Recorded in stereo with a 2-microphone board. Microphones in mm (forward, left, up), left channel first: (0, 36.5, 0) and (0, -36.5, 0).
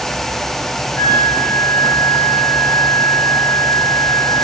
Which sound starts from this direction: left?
A flute, at 1.0 s.